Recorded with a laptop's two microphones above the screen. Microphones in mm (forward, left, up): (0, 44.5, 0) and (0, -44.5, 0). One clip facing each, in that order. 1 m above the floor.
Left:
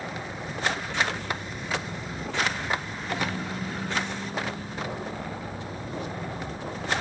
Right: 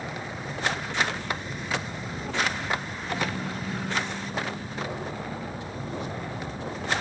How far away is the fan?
About 1.2 m.